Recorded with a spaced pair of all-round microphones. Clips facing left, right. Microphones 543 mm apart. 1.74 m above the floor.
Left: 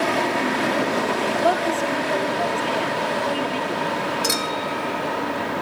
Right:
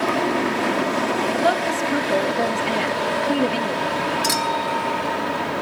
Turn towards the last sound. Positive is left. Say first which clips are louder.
# right 1 dB
turn(degrees=-20)  # may be behind; listen again after turning